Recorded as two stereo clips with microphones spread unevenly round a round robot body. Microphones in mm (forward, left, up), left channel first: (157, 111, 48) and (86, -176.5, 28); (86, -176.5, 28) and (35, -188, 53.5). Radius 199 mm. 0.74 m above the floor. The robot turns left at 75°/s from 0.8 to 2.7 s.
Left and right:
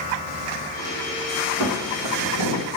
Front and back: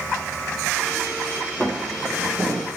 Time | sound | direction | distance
1.6 | footsteps | 85° right | 3 m